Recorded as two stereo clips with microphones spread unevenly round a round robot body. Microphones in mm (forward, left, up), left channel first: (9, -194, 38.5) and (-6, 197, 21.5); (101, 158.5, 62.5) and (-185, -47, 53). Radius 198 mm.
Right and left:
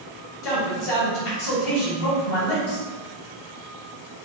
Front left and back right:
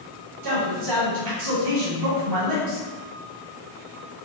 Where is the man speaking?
115° right, 1.8 m.